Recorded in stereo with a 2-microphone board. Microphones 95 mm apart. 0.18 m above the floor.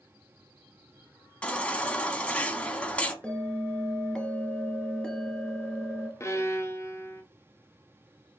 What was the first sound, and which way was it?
A baby crying, 10° left (ahead or behind).